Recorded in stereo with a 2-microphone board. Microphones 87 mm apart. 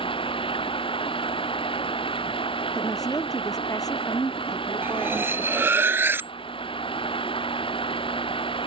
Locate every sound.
0.0 s running water: 80° left
2.8 s a woman speaking: 45° left (ahead or behind)
4.8 s cutlery clinking: 25° right (ahead or behind)